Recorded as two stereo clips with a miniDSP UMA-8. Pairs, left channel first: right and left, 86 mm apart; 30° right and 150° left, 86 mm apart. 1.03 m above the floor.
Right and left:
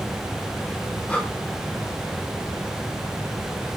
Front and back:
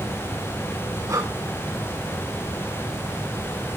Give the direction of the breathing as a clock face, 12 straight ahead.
6 o'clock.